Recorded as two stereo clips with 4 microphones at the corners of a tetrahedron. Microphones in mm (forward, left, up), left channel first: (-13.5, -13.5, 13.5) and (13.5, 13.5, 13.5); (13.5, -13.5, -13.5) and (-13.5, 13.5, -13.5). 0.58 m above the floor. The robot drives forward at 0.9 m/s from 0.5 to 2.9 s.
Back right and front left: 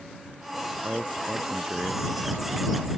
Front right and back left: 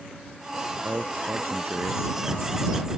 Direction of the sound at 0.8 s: 95° left.